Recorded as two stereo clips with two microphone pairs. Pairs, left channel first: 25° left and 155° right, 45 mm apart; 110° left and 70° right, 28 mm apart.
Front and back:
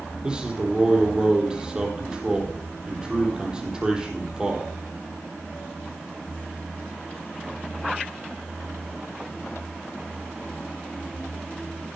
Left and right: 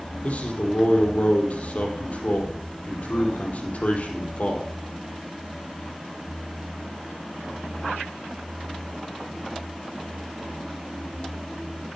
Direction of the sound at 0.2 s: 140° left.